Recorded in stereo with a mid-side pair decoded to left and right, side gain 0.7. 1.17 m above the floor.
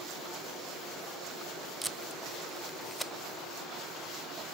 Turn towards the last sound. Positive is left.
turn(degrees=-5)